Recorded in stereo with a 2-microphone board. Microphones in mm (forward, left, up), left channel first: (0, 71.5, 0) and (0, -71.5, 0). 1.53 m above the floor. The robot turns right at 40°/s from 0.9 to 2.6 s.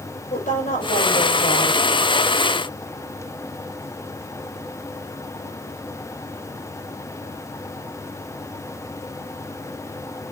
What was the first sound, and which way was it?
A woman speaking, 70° left.